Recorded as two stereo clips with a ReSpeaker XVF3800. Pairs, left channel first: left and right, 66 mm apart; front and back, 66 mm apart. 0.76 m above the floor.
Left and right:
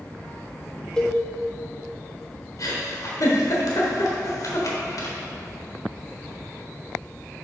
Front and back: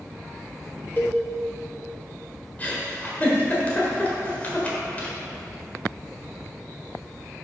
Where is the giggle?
65° left, 1.5 m.